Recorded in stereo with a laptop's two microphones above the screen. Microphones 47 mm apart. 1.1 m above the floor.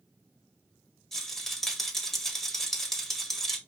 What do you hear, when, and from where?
1.1 s a rattle: 10° left (ahead or behind), 1.1 m